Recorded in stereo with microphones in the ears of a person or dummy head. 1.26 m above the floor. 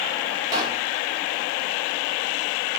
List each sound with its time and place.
0.5 s a pop: 25° right (ahead or behind), 1.0 m